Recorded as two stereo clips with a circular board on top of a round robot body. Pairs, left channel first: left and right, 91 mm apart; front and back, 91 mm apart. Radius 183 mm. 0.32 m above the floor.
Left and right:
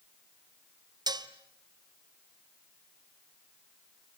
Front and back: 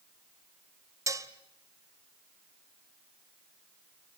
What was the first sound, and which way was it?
Dishes clattering, 130° right.